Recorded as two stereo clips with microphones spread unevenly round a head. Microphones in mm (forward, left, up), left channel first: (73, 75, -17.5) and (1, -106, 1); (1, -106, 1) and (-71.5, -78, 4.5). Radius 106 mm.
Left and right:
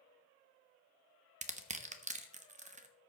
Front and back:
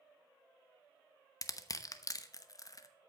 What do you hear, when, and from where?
1.4 s crushing: 65° right, 0.9 m